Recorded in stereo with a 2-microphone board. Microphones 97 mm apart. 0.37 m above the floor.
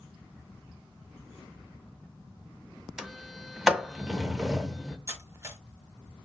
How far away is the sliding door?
About 0.7 m.